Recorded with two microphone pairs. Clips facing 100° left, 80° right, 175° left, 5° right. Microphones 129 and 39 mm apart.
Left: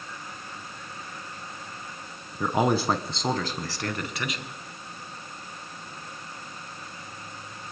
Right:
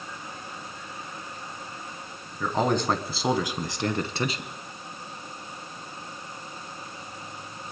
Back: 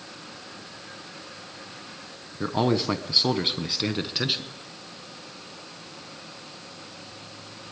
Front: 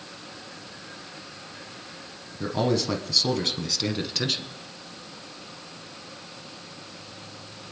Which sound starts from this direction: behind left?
A man speaking, at 2.4 s.